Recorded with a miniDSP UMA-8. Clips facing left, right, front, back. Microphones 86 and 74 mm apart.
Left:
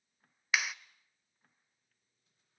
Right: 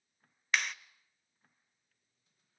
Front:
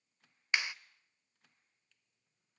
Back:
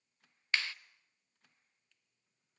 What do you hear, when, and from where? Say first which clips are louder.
0.5 s a clap: even, front 1 dB; 20° left, 0.7 m